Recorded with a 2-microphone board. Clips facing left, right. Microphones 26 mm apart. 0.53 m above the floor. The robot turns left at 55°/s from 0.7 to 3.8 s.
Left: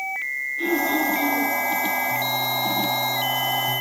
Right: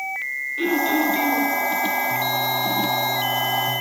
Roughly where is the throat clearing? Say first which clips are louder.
Right 2 dB; right.